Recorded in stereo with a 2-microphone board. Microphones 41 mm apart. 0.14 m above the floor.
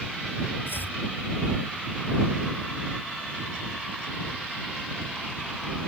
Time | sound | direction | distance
0.7 | chopping | 60° left (ahead or behind) | ?